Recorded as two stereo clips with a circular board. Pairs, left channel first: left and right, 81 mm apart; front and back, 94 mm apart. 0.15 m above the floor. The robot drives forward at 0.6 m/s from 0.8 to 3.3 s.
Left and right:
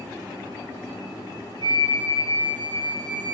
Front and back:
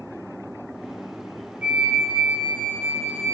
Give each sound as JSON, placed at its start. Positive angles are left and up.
{"t": 1.6, "sound": "a flute", "azimuth_deg": -105, "distance_m": 3.0}